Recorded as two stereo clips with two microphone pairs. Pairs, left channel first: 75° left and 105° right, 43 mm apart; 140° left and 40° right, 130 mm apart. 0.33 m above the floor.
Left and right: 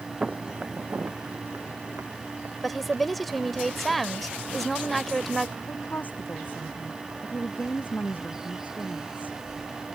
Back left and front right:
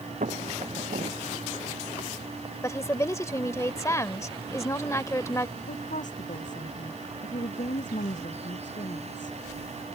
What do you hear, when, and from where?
0.2 s footsteps: 30° right; by 3.5 s 95° right
2.6 s a woman speaking: 165° left
5.6 s a woman speaking: 125° left